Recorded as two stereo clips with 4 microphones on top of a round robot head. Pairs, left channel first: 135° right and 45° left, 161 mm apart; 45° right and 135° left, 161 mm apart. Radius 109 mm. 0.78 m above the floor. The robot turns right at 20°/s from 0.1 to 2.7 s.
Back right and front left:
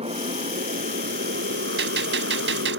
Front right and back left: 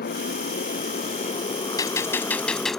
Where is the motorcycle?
10° right; by 2.8 s 40° left.